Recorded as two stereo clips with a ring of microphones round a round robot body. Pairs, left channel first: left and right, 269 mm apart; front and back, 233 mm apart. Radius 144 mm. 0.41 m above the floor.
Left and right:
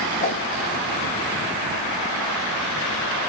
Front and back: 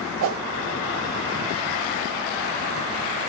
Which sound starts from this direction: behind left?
A whoosh, at 0.2 s.